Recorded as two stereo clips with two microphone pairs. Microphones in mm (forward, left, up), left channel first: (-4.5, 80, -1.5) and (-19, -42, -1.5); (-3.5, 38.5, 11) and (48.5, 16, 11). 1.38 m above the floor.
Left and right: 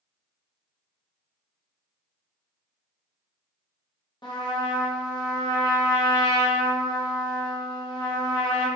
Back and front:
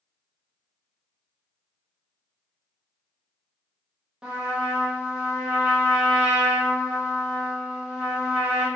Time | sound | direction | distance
4.2 | a trumpet | 45° left | 0.6 m